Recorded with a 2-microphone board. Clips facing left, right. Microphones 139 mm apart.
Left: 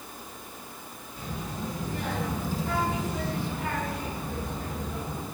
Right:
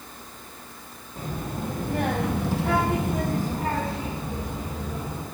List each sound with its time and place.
1.2 s a child speaking: 50° right (ahead or behind), 1.8 m; by 5.2 s 5° right (ahead or behind), 2 m